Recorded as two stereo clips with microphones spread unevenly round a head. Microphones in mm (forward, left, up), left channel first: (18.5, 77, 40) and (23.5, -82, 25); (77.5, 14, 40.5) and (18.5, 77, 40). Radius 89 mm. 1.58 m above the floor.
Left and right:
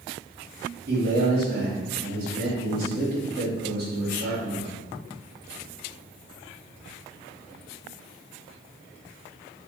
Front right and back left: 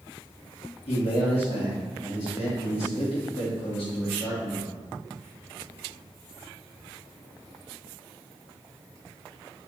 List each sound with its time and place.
0.9 s a man speaking: 55° right, 3 m